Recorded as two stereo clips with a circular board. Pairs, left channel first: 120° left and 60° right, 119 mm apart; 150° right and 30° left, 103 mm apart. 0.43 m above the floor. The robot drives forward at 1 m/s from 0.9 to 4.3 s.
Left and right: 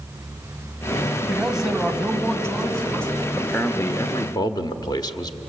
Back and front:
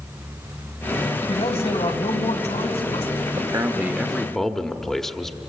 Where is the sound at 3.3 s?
40° left, 1.2 m; by 5.4 s 125° left, 1.0 m.